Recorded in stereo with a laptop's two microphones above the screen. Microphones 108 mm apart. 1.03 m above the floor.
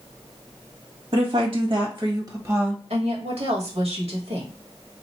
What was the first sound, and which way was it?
A woman speaking, 60° right (ahead or behind).